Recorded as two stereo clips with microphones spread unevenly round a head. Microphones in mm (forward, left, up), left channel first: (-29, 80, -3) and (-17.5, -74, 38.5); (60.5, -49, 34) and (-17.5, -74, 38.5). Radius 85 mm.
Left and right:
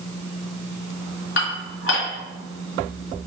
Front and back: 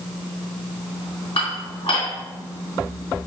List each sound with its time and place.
1.4 s dishes clattering: 70° left, 1.7 m